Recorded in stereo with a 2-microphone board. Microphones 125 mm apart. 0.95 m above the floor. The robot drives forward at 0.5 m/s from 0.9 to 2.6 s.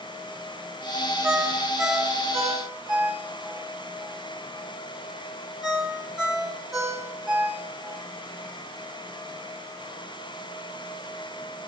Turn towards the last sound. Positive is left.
turn(degrees=-5)  # may be behind; listen again after turning